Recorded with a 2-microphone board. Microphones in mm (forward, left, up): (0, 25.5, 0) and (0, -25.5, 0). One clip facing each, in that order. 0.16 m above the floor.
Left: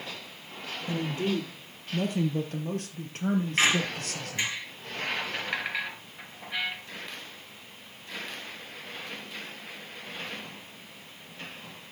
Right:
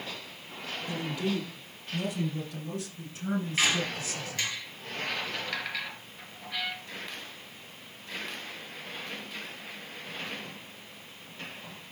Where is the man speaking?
40° left (ahead or behind), 4 m; by 4.6 s 65° left (ahead or behind), 2.5 m.